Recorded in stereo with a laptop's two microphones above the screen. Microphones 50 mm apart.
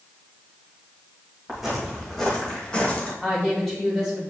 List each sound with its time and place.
1.5 s footsteps: 10° right (ahead or behind), 2.5 m; by 3.1 s 25° left (ahead or behind), 1.9 m
3.2 s a woman speaking: 5° left (ahead or behind), 2.5 m